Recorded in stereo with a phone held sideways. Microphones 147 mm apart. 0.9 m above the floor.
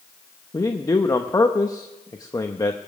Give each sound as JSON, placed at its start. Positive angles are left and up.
{"t": 0.5, "sound": "a man speaking", "side_deg": 25, "distance_m": 0.8}